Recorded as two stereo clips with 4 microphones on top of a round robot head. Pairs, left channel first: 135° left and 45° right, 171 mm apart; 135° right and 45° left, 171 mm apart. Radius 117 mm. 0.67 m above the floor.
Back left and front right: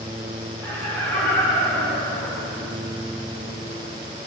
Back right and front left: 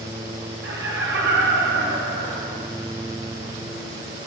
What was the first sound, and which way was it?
Laughter, 55° left.